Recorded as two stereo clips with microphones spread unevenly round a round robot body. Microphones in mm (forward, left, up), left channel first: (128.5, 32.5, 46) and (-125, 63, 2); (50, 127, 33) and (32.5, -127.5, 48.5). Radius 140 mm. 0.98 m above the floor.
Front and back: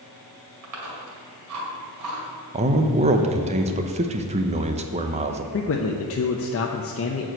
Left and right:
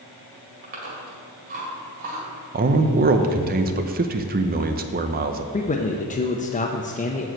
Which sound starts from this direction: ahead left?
A man speaking, at 5.5 s.